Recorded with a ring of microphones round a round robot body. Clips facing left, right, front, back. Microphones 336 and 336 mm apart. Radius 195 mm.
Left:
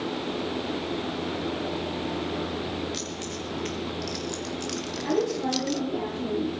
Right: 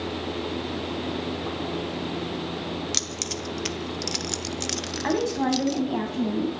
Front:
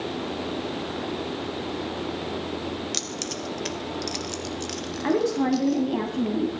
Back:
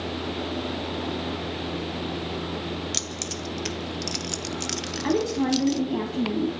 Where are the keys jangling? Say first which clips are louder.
Even, front 2 dB; 105° right, 1.7 m; by 5.8 s 170° left, 0.8 m.